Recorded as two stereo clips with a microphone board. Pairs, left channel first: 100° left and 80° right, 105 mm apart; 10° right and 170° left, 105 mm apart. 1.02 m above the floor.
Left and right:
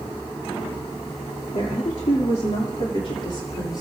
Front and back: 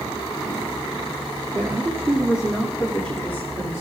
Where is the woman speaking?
115° left, 2.5 m; by 3.8 s 50° left, 3.5 m.